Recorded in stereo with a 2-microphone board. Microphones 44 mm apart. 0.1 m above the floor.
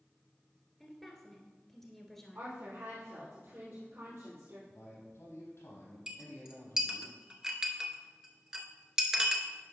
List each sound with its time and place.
0.8 s a woman speaking: 5° left (ahead or behind), 1.4 m
2.4 s a woman speaking: 55° right (ahead or behind), 2.5 m
4.7 s a man speaking: 65° left (ahead or behind), 3.5 m
6.1 s a clink: 15° right (ahead or behind), 0.8 m